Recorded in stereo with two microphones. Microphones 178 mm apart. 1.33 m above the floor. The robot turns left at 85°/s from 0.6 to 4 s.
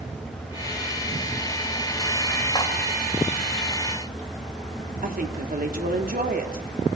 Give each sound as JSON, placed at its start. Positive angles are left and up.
{"t": 2.5, "sound": "cutlery clinking", "side_deg": 25, "distance_m": 4.0}
{"t": 5.0, "sound": "a woman speaking", "side_deg": -55, "distance_m": 3.0}